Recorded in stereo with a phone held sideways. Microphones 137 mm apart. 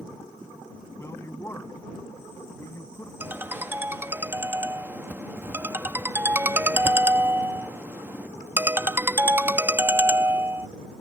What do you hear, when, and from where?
1.0 s a woman speaking: 20° left (ahead or behind)
3.2 s a ringtone: 15° right (ahead or behind)